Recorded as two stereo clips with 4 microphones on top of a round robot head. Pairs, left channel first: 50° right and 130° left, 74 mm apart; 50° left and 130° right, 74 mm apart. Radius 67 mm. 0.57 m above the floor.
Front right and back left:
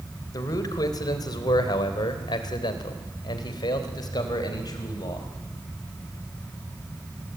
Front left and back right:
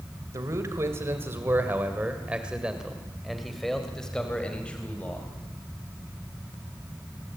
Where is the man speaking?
80° right, 3.5 m; by 5.3 s 15° right, 4 m.